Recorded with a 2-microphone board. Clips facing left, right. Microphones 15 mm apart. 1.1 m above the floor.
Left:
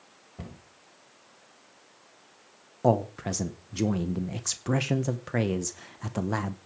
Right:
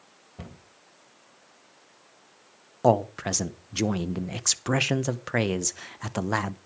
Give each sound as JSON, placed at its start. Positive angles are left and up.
{"t": 0.4, "sound": "a cupboard door", "side_deg": -10, "distance_m": 2.0}
{"t": 2.8, "sound": "a man speaking", "side_deg": -35, "distance_m": 0.7}